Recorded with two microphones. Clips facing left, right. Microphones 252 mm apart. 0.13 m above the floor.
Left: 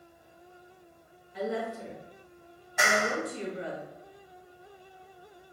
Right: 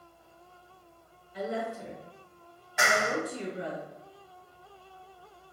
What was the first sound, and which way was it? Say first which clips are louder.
A woman speaking: left 1 dB; 25° right (ahead or behind).